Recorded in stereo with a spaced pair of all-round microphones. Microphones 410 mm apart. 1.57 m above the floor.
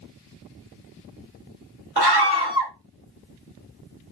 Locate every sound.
2.0 s a scream: 70° right (ahead or behind), 1.5 m